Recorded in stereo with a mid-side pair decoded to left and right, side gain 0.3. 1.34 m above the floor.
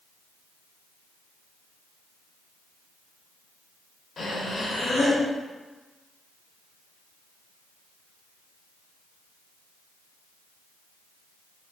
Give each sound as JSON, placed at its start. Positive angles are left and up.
{"t": 4.2, "sound": "breathing", "azimuth_deg": 65, "distance_m": 0.8}